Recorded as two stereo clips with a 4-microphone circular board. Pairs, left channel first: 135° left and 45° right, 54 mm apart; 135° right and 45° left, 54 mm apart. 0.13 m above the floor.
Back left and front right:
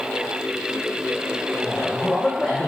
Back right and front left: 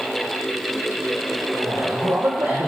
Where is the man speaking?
50° left, 5 m.